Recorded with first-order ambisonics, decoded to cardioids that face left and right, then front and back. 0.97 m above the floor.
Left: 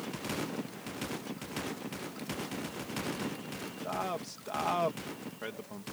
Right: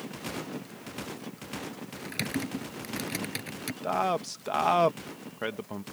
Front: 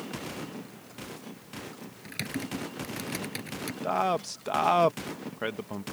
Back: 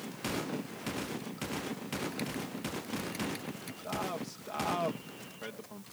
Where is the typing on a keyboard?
60° right.